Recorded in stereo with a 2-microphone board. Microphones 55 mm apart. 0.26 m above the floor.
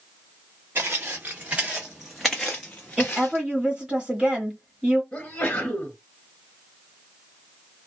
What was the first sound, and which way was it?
Footsteps, 40° right (ahead or behind).